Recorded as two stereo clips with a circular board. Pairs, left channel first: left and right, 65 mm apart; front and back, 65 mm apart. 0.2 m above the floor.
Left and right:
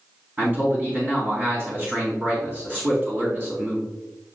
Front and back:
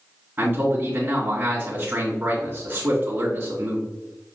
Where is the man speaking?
125° right, 2 m.